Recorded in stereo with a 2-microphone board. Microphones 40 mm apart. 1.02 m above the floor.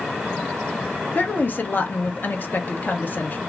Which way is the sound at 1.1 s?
50° left (ahead or behind).